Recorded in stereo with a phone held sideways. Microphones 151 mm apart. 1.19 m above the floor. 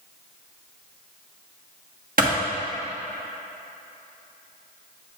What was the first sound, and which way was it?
A clap, 60° right (ahead or behind).